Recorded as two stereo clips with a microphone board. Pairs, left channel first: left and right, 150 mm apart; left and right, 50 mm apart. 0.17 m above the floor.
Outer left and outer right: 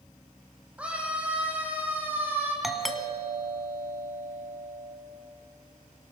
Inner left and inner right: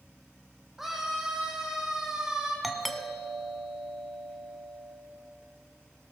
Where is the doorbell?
Centre (ahead or behind), 1.6 m.